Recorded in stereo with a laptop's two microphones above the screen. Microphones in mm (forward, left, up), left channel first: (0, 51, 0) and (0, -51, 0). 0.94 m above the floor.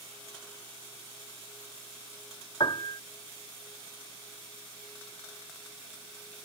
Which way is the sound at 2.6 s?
50° left (ahead or behind).